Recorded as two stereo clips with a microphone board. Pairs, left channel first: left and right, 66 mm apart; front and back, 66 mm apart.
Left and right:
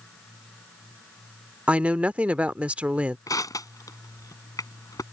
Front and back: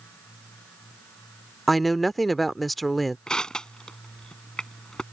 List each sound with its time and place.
1.7 s a woman speaking: 85° right
3.3 s crushing: 75° left